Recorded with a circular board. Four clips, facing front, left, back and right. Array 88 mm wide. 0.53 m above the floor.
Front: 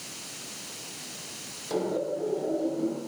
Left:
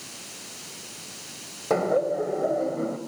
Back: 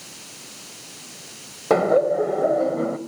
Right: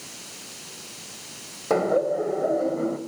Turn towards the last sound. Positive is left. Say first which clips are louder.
# right 1 dB, back 11 dB
turn(degrees=-175)